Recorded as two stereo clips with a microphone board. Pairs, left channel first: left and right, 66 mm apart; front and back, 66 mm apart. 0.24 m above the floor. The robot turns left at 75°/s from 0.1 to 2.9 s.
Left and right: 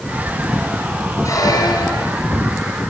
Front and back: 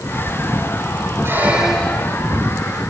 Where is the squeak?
130° left, 6 m; by 2.2 s 55° left, 6 m.